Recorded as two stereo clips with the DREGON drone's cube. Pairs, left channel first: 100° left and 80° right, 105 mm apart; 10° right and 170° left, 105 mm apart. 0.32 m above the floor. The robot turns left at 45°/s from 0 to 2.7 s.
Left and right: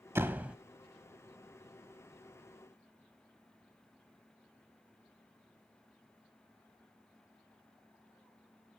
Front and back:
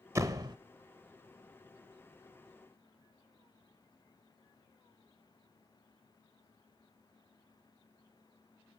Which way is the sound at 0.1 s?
135° right.